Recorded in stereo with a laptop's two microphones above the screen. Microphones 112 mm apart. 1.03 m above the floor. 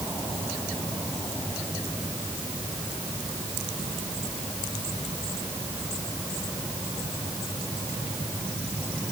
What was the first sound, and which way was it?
Only background noise.